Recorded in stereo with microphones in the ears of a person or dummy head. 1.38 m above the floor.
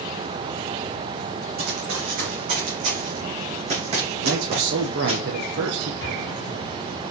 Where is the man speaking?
60° right (ahead or behind), 1.1 m.